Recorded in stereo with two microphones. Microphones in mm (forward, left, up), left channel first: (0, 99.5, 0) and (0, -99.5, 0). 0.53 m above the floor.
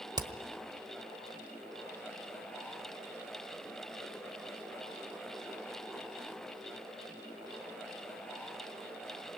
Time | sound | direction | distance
0.2 | hammering | 20° right (ahead or behind) | 1.3 m